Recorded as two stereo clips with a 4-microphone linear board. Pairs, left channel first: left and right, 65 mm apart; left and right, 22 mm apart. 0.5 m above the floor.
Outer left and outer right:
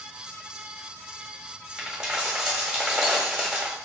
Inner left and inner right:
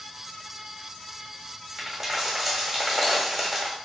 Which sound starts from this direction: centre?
A dropped coin, at 1.8 s.